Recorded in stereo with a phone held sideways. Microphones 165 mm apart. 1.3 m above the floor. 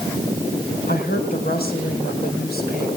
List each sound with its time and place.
0.9 s a woman speaking: 70° left (ahead or behind), 5 m